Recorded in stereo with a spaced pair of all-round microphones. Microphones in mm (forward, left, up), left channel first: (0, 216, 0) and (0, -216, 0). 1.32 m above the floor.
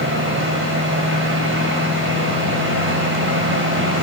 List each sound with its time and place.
0.0 s a fan: 30° right (ahead or behind), 5 m